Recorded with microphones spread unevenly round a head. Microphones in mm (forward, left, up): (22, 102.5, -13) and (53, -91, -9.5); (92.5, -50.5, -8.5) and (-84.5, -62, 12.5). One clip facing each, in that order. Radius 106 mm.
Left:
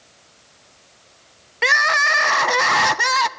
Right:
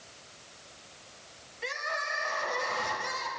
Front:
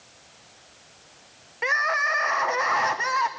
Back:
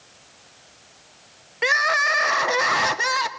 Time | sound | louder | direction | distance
1.6 | crying | left 13 dB, back 4 dB | 125° left | 0.6 m